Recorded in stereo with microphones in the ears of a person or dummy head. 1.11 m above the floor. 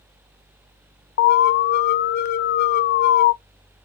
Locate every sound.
1.2 s an alarm: 55° left (ahead or behind), 0.8 m